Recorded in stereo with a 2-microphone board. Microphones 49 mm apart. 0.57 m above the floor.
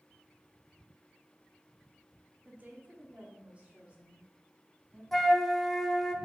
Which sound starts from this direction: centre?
A flute, at 5.1 s.